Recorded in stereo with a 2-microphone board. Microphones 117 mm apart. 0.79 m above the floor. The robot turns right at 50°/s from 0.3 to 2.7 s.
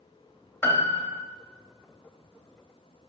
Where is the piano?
20° left (ahead or behind), 0.6 m; by 1.2 s 15° left (ahead or behind), 0.6 m.